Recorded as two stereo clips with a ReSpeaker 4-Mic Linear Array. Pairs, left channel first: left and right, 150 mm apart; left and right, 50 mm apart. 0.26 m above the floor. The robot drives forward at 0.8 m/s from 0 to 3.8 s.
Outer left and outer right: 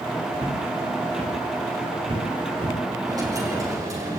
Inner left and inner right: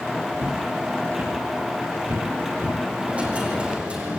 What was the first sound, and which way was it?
Footsteps, 45° right (ahead or behind).